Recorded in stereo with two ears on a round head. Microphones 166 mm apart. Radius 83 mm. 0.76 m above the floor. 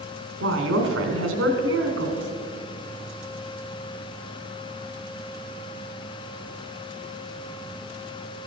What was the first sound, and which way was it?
A woman speaking, 75° right (ahead or behind).